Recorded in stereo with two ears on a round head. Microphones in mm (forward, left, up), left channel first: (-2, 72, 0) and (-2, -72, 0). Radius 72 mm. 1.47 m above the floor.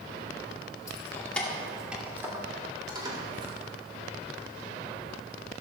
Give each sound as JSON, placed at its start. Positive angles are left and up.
{"t": 0.9, "sound": "keys jangling", "side_deg": 20, "distance_m": 2.0}